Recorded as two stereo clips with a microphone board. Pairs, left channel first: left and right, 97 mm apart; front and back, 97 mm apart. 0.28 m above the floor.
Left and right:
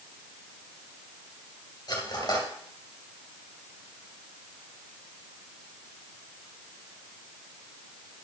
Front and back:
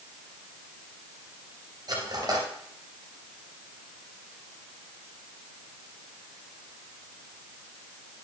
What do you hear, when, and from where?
1.9 s cutlery clinking: 135° left, 2.5 m